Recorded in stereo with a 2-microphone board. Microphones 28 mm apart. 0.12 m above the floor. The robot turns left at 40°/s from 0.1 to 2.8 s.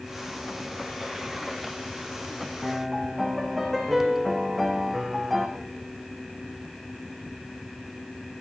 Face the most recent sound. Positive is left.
turn(degrees=0)  # may be behind; listen again after turning